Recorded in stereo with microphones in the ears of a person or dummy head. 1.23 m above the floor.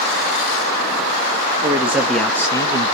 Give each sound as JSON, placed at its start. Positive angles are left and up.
{"t": 1.6, "sound": "a man speaking", "side_deg": -15, "distance_m": 1.2}